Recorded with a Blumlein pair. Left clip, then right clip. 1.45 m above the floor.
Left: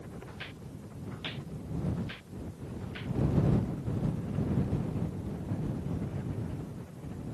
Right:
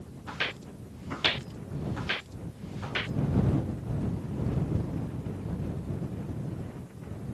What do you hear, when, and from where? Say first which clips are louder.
0.3 s footsteps: right 17 dB; 30° right; by 3.1 s 35° right